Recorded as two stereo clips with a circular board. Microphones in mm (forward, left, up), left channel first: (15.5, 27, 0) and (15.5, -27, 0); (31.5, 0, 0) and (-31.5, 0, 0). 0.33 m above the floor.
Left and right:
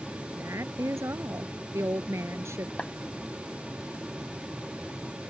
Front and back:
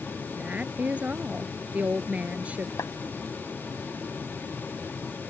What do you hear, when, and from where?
0.3 s a woman speaking: 115° right
2.8 s a clap: 25° left